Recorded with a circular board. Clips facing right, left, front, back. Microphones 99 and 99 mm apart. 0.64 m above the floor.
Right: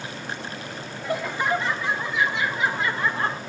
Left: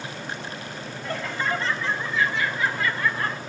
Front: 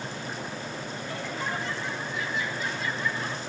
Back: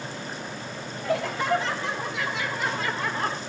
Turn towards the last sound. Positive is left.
turn(degrees=-155)